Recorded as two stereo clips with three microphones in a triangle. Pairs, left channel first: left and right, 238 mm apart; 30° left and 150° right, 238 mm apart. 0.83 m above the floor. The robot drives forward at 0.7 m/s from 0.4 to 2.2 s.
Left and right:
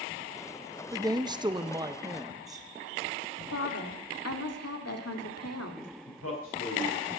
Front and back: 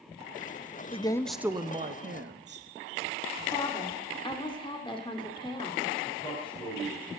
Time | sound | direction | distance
0.9 | a woman speaking | 25° right | 0.7 m
3.5 | a woman speaking | 100° left | 1.9 m
6.1 | a man speaking | 100° left | 4.5 m